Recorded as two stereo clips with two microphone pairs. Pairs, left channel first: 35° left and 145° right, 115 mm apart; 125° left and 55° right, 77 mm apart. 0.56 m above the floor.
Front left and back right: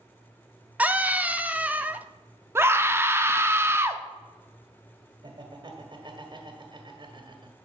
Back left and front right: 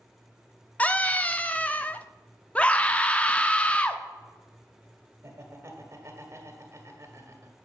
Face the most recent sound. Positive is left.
turn(degrees=-100)